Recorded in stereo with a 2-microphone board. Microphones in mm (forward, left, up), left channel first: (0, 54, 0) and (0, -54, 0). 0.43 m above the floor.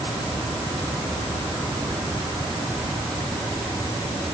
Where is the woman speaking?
I don't hear a woman speaking.